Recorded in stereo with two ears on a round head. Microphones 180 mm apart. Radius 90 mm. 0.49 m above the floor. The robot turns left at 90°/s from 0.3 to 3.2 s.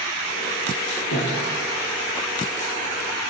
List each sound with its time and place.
1.1 s breathing: 85° left, 8 m; by 1.4 s 70° left (ahead or behind), 8 m